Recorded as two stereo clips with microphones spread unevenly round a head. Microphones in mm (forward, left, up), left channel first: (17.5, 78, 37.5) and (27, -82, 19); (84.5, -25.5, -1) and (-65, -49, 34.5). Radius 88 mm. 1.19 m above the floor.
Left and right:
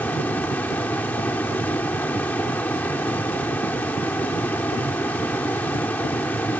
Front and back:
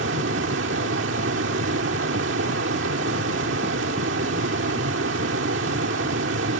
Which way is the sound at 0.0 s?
175° left.